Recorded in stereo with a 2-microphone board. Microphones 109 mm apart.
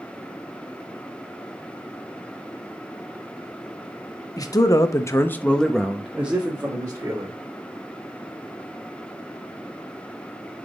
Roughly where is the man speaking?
Left.